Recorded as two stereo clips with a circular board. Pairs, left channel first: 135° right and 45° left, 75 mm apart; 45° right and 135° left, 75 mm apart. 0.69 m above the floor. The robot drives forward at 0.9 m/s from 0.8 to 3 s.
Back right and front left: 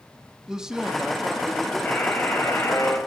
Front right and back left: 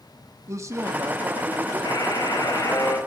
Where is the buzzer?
70° right, 3.5 m; by 3.0 s 85° right, 3 m.